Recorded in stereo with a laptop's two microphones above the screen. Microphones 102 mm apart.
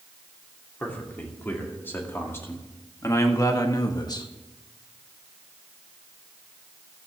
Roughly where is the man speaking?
Centre.